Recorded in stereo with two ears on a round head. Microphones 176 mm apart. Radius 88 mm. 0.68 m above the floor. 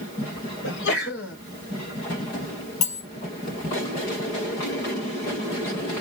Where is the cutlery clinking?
40° left (ahead or behind), 1.3 m.